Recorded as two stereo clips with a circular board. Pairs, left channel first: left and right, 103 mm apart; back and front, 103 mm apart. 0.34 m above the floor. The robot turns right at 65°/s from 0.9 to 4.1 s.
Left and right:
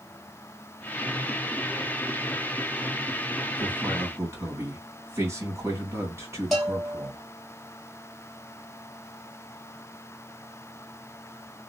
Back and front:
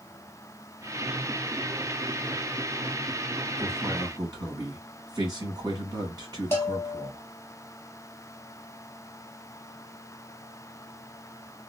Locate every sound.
3.6 s a man speaking: 70° right, 1.7 m; by 7.2 s 35° right, 1.7 m
6.5 s a bell: 175° left, 1.3 m